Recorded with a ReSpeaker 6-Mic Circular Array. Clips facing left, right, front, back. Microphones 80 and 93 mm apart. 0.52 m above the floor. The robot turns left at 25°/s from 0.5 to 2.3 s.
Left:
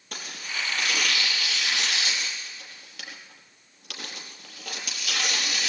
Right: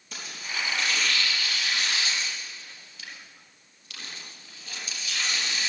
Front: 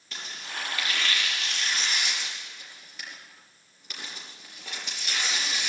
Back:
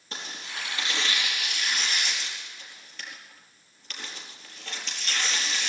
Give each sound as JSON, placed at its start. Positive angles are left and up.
{"t": 0.1, "sound": "tearing paper", "azimuth_deg": 125, "distance_m": 5.0}